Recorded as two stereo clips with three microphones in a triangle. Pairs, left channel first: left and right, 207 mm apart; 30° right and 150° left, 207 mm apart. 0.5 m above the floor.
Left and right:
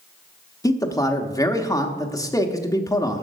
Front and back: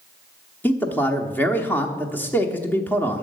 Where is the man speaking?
40° left, 1.0 m.